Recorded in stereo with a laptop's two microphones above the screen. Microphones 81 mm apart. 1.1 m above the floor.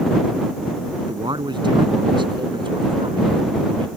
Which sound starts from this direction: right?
A man speaking, at 1.0 s.